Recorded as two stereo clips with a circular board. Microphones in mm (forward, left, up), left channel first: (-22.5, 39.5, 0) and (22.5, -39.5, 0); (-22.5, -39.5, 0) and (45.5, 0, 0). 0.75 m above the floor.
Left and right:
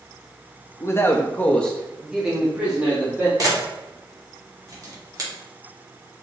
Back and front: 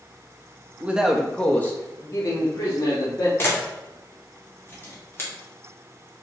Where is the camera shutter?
100° right, 1.4 m.